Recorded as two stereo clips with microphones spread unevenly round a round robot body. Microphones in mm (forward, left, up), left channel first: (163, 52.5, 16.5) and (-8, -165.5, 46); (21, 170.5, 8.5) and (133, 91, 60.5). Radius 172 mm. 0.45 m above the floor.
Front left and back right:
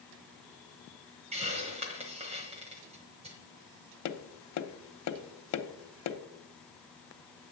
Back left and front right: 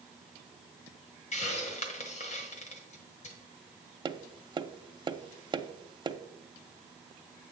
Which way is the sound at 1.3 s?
160° left.